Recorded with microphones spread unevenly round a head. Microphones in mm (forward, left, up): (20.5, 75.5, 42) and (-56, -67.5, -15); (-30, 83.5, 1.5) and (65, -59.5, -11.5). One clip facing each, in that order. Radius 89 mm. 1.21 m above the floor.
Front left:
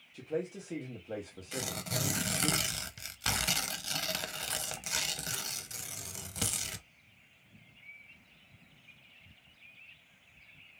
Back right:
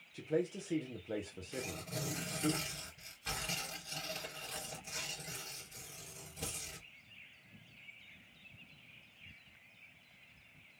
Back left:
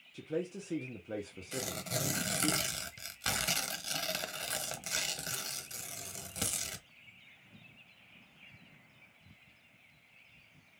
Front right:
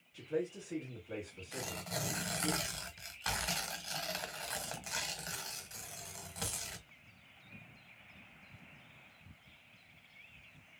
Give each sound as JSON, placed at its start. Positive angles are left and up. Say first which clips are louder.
{"t": 0.1, "sound": "a man speaking", "louder": "back right 1 dB, even", "azimuth_deg": 170, "distance_m": 1.0}
{"t": 1.5, "sound": "tearing paper", "louder": "front left 4 dB, back left 4 dB", "azimuth_deg": 70, "distance_m": 0.8}